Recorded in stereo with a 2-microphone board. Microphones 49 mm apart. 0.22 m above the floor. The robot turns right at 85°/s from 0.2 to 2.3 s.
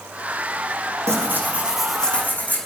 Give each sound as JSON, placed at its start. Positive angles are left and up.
{"t": 1.1, "sound": "tearing paper", "azimuth_deg": -70, "distance_m": 3.5}